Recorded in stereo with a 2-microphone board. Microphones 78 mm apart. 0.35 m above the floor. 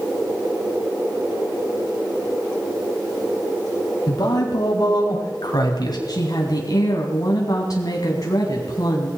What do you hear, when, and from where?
4.1 s a man speaking: 60° left (ahead or behind), 3 m
6.1 s a woman speaking: 50° left (ahead or behind), 3 m